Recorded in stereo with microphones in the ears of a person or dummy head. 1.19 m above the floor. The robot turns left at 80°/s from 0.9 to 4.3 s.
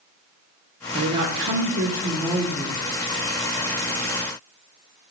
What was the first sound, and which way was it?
A woman speaking, 40° right.